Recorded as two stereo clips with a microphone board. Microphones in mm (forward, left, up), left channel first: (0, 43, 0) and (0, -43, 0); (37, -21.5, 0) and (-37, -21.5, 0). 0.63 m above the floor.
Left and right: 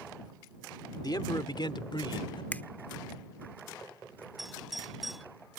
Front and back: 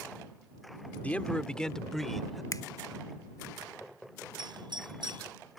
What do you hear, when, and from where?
1.0 s a man speaking: 70° left; by 2.4 s 90° left
2.5 s a finger snap: 25° left
4.4 s a doorbell: straight behind